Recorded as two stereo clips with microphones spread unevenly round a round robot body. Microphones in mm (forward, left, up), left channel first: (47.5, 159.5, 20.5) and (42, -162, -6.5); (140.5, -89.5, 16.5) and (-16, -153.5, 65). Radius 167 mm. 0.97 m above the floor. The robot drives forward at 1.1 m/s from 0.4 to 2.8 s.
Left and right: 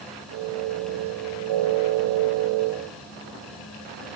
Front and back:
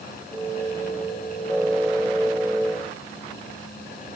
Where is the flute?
No flute in this recording.